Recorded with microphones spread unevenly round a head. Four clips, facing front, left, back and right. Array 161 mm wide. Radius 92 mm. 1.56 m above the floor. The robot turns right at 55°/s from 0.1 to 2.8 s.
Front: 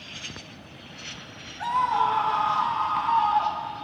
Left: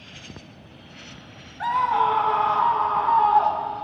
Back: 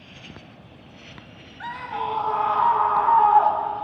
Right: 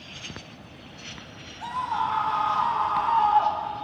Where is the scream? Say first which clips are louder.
Left 7 dB, front 7 dB; 90° left; by 3.9 s 155° left.